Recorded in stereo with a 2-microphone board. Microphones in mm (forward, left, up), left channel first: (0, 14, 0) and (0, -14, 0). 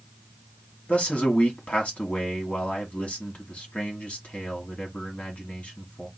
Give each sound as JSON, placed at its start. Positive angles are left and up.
{"t": 0.9, "sound": "a man speaking", "side_deg": 50, "distance_m": 1.7}